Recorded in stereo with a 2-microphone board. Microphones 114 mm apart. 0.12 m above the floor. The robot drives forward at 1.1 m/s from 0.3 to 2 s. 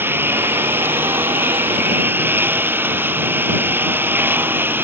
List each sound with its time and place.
0.0 s a lawn mower: 20° right (ahead or behind)